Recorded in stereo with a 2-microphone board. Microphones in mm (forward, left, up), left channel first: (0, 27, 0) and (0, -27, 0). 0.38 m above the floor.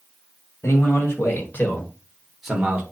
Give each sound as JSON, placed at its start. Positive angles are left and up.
{"t": 0.6, "sound": "a man speaking", "side_deg": 55, "distance_m": 1.8}